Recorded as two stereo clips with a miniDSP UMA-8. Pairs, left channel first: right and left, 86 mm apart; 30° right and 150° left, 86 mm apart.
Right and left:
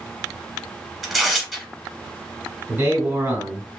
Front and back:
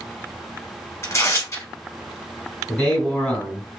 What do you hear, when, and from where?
1.0 s tearing paper: 5° left, 0.9 m
2.7 s a man speaking: 50° left, 2.0 m